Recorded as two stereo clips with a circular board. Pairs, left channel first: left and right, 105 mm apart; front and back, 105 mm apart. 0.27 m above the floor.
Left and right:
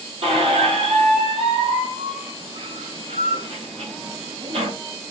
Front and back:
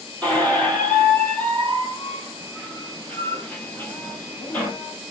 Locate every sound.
0.2 s a squeak: 75° right, 0.8 m